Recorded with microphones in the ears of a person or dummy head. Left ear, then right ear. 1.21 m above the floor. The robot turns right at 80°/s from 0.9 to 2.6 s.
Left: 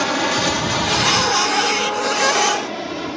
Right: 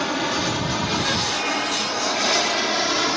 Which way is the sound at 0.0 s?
15° left (ahead or behind).